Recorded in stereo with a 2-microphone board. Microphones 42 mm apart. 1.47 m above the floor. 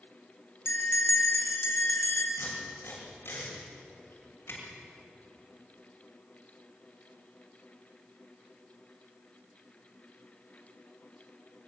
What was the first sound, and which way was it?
A bell, 75° left (ahead or behind).